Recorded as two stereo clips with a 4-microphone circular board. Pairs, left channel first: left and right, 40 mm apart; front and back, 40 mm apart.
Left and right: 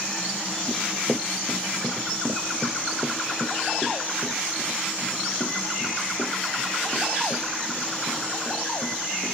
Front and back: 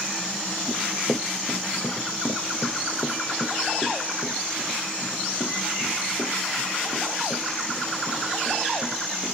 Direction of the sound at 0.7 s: Straight ahead.